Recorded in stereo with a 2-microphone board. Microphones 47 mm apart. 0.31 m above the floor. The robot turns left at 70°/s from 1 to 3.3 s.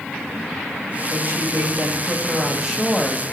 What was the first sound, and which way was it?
A woman speaking, 60° right.